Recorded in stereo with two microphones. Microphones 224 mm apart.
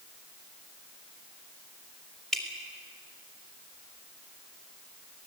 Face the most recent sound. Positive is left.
turn(degrees=0)  # may be behind; listen again after turning